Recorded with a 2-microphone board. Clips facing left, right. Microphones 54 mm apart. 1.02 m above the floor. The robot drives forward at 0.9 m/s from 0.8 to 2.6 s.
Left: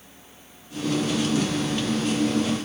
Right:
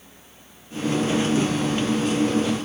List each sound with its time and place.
Only background noise.